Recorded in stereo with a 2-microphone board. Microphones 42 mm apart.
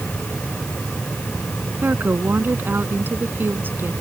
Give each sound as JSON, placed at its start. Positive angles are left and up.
{"t": 1.8, "sound": "a woman speaking", "side_deg": -55}